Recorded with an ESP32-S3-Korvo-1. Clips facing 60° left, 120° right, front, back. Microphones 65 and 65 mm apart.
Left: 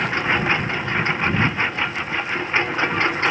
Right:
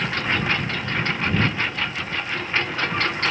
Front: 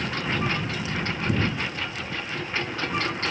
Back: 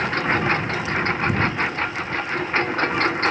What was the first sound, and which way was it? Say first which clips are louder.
A lawn mower: left 3 dB, back 6 dB; 130° left.